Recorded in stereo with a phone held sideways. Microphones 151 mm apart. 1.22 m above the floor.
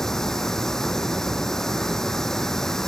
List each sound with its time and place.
0.0 s running water: 5° left (ahead or behind)